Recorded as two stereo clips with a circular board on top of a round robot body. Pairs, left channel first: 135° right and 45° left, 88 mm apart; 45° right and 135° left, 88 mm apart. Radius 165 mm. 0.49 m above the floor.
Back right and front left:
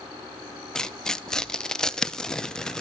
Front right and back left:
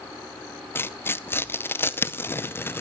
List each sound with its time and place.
0.8 s tearing paper: 60° right, 0.7 m